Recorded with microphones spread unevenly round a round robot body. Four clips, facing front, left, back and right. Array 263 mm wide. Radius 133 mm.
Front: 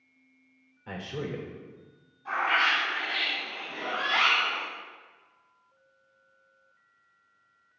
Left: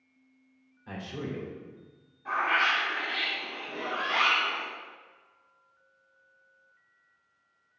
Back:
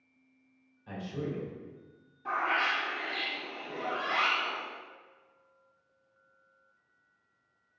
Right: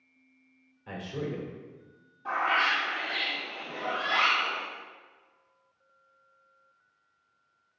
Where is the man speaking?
15° right, 2.5 m.